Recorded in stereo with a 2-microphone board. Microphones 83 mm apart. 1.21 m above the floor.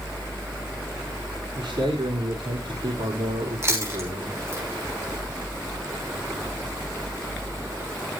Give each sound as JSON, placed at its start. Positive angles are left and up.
{"t": 1.6, "sound": "a man speaking", "side_deg": -80, "distance_m": 4.5}
{"t": 3.6, "sound": "chewing", "side_deg": -35, "distance_m": 6.0}